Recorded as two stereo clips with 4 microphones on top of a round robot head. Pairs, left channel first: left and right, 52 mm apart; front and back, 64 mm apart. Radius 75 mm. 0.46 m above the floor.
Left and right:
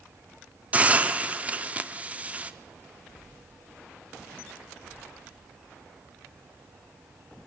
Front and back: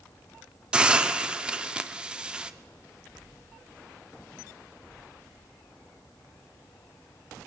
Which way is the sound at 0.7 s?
120° right.